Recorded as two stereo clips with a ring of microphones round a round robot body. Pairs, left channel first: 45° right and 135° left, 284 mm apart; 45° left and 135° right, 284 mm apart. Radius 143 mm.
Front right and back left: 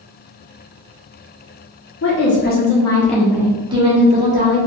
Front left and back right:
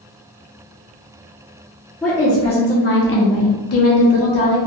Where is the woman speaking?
40° right, 1.0 m; by 4.6 s 75° left, 1.7 m.